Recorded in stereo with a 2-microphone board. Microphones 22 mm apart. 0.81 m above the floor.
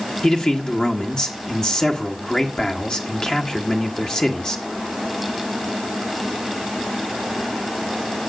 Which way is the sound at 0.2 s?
35° left (ahead or behind).